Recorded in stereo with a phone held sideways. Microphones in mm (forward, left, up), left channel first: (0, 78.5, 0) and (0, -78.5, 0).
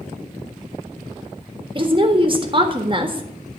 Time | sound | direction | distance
1.8 | a woman speaking | 35° right (ahead or behind) | 1.5 m